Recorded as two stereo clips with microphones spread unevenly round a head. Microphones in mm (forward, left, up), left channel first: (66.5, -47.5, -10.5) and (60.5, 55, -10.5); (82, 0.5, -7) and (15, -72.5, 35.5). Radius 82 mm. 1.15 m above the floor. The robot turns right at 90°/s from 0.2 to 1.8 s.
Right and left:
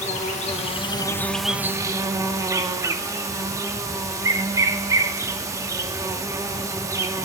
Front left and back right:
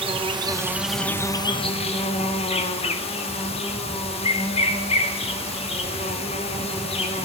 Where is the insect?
110° right, 1.7 m; by 7.2 s 35° left, 1.7 m.